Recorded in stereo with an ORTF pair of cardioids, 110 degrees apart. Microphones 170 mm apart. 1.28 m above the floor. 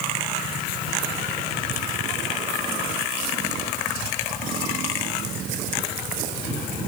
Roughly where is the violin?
I don't hear a violin.